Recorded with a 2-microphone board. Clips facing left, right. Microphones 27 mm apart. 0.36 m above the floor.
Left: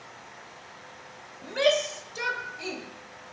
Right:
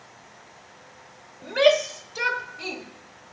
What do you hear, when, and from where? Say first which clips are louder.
1.4 s a shout: right 5 dB; 25° right (ahead or behind), 1.2 m; by 2.8 s 10° right (ahead or behind), 1.7 m